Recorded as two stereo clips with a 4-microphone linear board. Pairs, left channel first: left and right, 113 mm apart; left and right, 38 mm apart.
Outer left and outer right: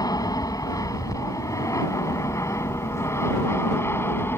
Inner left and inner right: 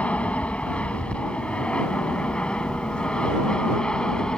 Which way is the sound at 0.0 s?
35° left (ahead or behind).